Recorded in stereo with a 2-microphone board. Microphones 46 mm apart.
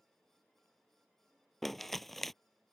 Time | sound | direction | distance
1.6 | crumpling | centre (ahead or behind) | ?